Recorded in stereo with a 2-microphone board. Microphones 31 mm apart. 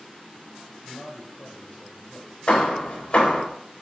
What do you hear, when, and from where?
0.8 s a man speaking: 35° left (ahead or behind), 0.7 m
2.5 s hammering: 40° left (ahead or behind), 0.9 m